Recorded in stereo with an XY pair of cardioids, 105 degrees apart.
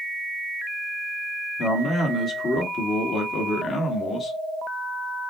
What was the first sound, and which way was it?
A man speaking, 50° left.